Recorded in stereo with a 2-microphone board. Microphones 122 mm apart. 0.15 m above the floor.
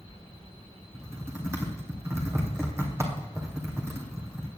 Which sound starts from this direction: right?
Typing on a keyboard, at 0.9 s.